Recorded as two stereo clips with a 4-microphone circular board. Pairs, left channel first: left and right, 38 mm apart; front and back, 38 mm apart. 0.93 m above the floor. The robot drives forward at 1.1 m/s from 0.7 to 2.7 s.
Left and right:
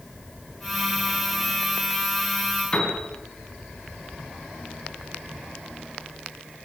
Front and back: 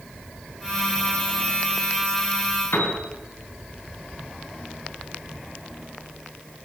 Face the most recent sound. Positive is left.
turn(degrees=25)